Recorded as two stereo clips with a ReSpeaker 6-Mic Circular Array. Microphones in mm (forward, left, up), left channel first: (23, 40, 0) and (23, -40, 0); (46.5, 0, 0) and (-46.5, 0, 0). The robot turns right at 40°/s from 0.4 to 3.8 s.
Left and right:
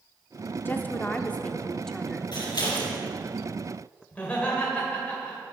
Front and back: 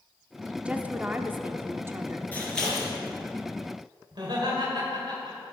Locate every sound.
0.7 s a woman speaking: 115° left, 0.7 m; by 2.2 s straight behind, 0.7 m
2.3 s scissors: 70° left, 4.5 m; by 2.9 s 95° left, 4.5 m
4.1 s laughter: 160° left, 2.5 m